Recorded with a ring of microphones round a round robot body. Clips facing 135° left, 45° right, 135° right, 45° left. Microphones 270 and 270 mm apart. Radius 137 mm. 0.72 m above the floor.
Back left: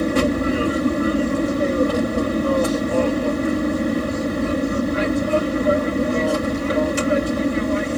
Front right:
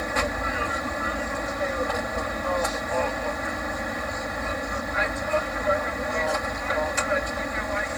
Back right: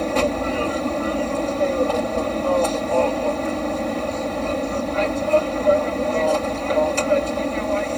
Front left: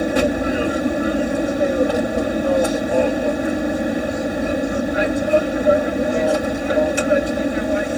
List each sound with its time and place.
0.0 s an aircraft: 115° left